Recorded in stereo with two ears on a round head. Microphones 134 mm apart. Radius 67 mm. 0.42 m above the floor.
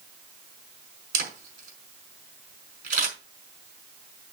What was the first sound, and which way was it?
A camera shutter, 65° right (ahead or behind).